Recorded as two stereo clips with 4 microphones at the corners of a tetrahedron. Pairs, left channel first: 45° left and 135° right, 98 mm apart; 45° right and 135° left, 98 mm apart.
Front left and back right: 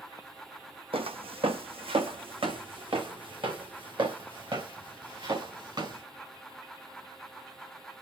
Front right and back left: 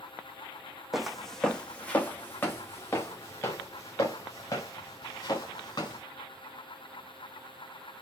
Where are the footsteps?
140° right, 1.2 m; by 6.0 s 95° right, 3.5 m.